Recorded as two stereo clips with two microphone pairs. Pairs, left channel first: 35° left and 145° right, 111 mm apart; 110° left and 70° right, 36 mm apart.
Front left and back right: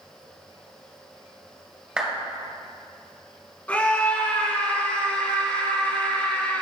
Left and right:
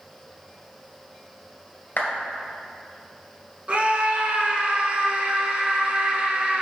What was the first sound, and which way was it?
A clap, 135° left.